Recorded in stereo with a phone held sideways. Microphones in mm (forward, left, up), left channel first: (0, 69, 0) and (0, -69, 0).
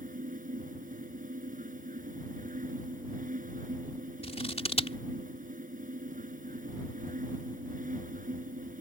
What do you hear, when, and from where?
0.0 s a fan: 75° right (ahead or behind)
4.2 s scissors: 50° left (ahead or behind)